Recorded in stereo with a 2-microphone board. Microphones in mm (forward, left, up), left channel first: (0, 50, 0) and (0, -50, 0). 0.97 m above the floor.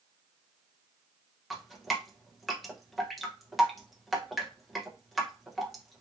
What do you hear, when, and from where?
1.5 s dripping: centre (ahead or behind), 0.7 m